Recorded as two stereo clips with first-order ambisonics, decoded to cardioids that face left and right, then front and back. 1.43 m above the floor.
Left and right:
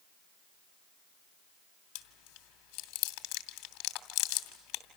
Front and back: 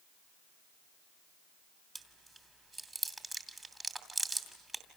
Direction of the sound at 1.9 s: 95° left.